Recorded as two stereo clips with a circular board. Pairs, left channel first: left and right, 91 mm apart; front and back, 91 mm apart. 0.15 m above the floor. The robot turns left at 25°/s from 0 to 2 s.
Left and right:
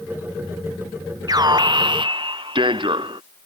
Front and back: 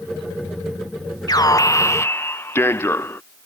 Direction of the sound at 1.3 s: 45° right.